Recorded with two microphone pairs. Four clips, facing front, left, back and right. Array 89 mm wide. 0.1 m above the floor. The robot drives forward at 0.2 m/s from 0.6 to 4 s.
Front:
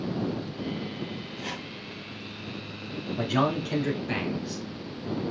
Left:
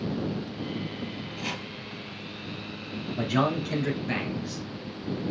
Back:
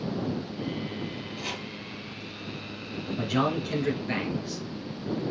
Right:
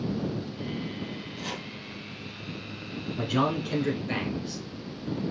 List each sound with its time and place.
1.4 s chopping: 120° left, 1.2 m
3.2 s a man speaking: 80° left, 1.1 m; by 4.6 s 105° left, 1.1 m